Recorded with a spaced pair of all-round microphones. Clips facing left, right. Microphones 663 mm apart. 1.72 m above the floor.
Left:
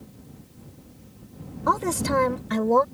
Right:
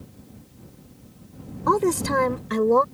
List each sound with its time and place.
1.7 s a woman speaking: 15° left (ahead or behind); by 2.8 s 20° left (ahead or behind)